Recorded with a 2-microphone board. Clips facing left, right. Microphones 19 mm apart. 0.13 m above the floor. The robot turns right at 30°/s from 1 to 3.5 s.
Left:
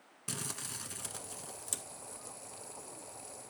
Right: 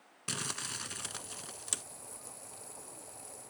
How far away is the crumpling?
About 0.7 m.